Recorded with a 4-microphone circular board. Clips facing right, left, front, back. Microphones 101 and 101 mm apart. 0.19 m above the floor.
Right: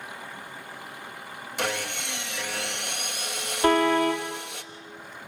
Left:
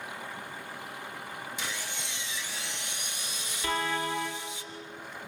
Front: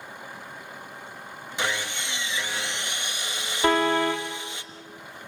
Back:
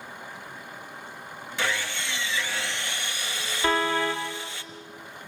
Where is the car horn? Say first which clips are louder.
Right 11 dB, front 3 dB; 55° right, 3.5 m.